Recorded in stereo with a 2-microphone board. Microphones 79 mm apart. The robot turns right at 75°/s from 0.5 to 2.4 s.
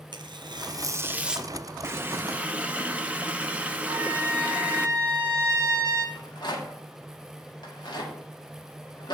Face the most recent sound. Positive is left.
turn(degrees=70)  # may be behind; listen again after turning